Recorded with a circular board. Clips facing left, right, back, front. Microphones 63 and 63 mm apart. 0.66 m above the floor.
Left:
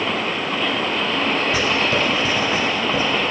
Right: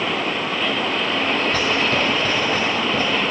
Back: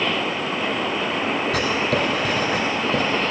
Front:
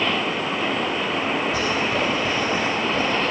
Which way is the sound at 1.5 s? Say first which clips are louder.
Even, back 1 dB; 170° left.